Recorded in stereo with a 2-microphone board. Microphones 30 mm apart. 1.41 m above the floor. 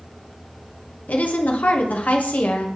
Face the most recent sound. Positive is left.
turn(degrees=70)  # may be behind; listen again after turning